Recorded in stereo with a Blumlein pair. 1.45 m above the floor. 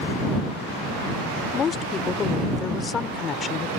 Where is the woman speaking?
20° left.